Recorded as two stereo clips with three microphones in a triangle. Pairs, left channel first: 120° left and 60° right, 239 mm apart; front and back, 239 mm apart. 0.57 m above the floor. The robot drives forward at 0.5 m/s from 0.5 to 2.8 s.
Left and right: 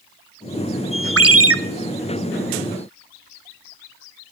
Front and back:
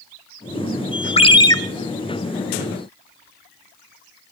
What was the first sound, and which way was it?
A ringtone, 65° right.